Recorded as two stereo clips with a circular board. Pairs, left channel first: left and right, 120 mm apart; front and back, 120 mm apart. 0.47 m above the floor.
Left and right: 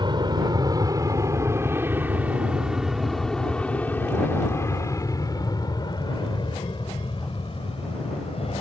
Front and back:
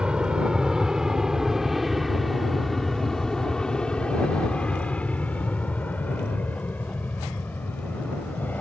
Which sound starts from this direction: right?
An aircraft, at 0.0 s.